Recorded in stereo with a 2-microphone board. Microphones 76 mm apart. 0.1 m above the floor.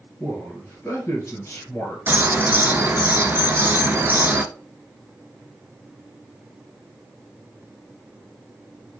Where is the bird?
25° right (ahead or behind), 0.5 m.